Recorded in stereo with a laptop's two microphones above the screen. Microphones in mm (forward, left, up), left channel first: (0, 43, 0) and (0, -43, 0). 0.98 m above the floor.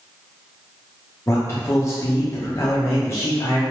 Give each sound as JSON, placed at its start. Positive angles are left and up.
{"t": 1.3, "sound": "a man speaking", "side_deg": 30, "distance_m": 0.8}